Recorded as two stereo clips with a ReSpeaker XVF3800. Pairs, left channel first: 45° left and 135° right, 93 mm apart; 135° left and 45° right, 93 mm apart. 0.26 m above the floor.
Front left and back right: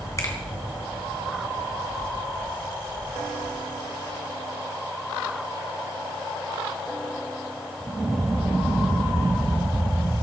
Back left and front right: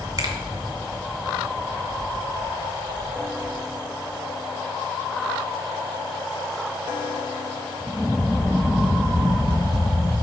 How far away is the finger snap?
About 2.5 m.